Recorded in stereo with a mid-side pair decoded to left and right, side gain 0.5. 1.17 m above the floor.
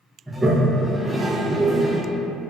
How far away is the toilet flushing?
About 0.9 m.